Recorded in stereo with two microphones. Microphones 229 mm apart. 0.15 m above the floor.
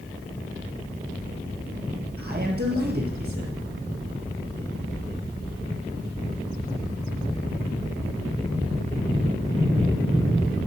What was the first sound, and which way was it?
A man speaking, 45° right (ahead or behind).